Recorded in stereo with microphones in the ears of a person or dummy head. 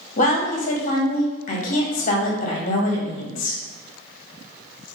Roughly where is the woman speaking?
Left.